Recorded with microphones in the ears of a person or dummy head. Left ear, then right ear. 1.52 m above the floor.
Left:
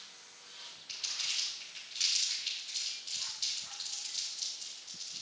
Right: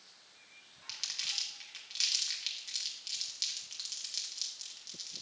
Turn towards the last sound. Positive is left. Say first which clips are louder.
# left 1 dB
turn(degrees=-55)  # may be behind; listen again after turning